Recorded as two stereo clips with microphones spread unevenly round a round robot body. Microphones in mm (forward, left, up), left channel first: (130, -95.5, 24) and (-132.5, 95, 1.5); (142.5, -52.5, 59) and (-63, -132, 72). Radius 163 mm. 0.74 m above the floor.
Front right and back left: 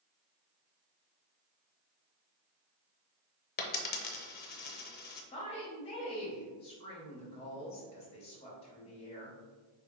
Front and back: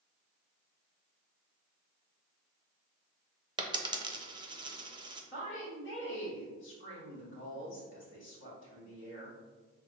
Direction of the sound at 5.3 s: 35° left.